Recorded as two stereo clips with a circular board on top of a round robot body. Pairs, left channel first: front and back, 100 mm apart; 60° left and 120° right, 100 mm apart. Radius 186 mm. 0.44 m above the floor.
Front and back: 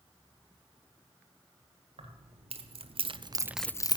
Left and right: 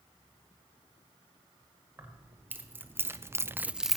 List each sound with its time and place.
2.0 s keys jangling: 170° left, 1.7 m; by 4.0 s 30° right, 0.6 m